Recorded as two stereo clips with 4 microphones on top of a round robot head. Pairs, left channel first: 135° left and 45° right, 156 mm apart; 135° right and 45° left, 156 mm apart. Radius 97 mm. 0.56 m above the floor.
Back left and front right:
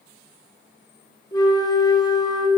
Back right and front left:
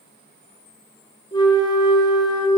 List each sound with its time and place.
1.3 s a flute: 175° right, 1.4 m